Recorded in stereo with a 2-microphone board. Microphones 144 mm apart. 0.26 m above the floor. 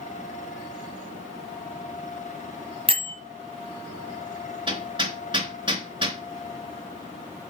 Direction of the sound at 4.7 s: 35° right (ahead or behind).